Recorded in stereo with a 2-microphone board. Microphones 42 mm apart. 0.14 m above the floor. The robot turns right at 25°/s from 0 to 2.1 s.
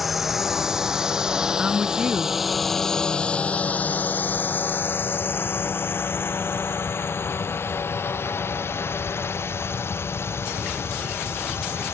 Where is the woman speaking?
20° right (ahead or behind).